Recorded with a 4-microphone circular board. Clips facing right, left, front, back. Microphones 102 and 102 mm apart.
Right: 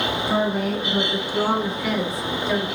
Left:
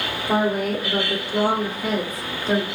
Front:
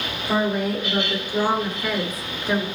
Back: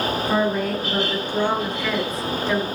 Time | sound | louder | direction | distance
0.3 | a woman speaking | left 3 dB, front 1 dB | 80° left | 3 m